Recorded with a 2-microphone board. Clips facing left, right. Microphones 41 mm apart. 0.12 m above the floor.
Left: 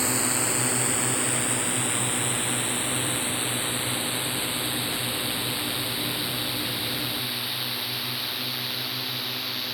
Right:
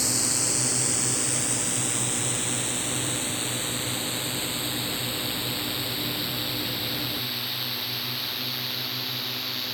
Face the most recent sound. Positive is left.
turn(degrees=5)  # may be behind; listen again after turning